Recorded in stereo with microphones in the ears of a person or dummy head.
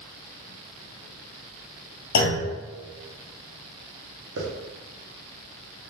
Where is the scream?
I don't hear a scream.